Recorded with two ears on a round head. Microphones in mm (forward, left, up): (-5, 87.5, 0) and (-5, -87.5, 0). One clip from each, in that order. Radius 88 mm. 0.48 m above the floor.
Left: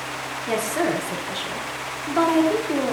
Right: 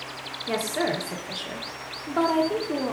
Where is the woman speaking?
Centre (ahead or behind), 1.1 m.